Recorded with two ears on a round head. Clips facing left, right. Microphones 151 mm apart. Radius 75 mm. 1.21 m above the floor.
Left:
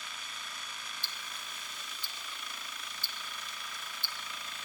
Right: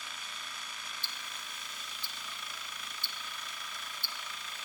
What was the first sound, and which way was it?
Ticking, 65° left (ahead or behind).